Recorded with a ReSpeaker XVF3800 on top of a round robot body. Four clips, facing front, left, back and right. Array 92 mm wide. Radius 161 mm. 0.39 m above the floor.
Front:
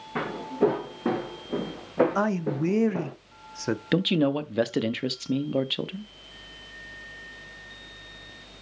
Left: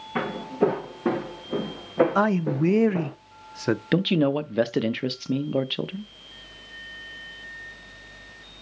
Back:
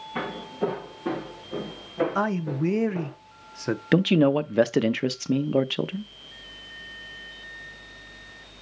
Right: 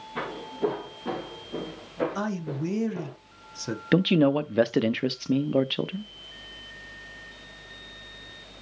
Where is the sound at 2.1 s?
85° left, 0.9 m.